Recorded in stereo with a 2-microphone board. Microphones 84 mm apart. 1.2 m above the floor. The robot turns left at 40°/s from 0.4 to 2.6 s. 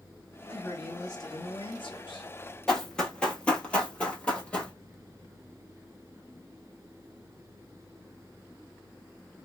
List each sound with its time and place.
0.5 s a man speaking: 155° left, 1.3 m; by 2.3 s 85° left, 1.3 m
2.7 s running footsteps: 10° left (ahead or behind), 1.3 m; by 4.7 s 15° left (ahead or behind), 1.4 m